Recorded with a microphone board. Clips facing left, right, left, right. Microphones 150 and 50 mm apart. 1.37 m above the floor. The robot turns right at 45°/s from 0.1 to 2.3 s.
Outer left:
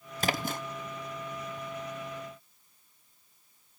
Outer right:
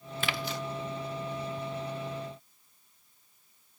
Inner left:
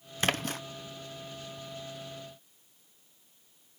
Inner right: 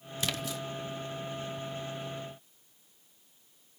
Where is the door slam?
No door slam in this recording.